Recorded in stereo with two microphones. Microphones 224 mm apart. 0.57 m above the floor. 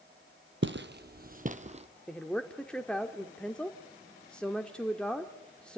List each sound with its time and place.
0.6 s footsteps: 55° right (ahead or behind), 1.2 m; by 1.9 s 30° right (ahead or behind), 1.4 m
2.1 s a woman speaking: 5° left (ahead or behind), 1.2 m